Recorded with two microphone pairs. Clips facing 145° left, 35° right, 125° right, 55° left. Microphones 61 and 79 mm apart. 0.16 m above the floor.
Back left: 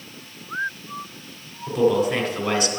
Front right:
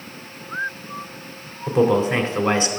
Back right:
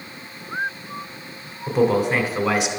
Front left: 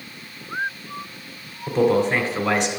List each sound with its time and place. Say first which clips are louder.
1.7 s a man speaking: front right 2 dB, even; 40° right, 1.1 m